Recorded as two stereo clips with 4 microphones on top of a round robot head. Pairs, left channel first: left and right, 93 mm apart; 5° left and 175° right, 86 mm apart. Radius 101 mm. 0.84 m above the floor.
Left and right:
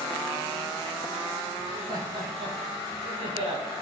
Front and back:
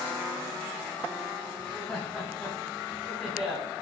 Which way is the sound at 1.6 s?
80° right.